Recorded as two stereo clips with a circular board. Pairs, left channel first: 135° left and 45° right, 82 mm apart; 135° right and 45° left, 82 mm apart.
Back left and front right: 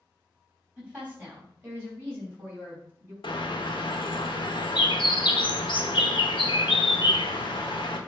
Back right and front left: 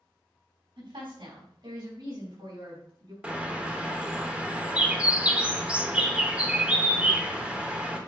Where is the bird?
125° left, 1.1 m.